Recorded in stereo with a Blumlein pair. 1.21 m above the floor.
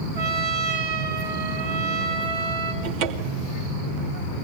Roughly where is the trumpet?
Ahead right.